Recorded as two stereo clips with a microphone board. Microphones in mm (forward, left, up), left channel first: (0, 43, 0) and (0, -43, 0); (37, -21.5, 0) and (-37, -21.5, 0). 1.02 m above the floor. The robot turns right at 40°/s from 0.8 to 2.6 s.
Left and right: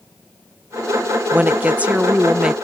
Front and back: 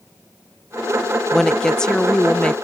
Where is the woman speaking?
75° right; by 2.5 s 25° right.